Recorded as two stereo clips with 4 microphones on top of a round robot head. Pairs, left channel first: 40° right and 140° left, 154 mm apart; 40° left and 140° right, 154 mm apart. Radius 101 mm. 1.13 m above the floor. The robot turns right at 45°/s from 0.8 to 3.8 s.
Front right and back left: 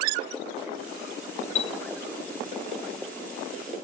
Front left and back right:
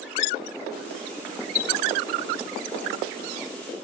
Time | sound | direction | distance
1.6 | a chime | 10° left | 0.5 m